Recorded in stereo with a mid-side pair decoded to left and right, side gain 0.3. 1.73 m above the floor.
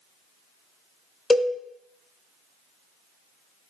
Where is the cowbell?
25° left, 0.6 m.